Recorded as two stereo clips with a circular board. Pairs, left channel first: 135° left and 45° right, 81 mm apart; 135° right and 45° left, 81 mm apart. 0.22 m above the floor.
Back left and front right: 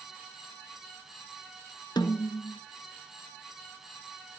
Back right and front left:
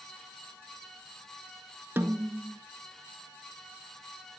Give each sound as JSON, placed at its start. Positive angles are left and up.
{"t": 2.0, "sound": "a snare drum", "azimuth_deg": 110, "distance_m": 0.8}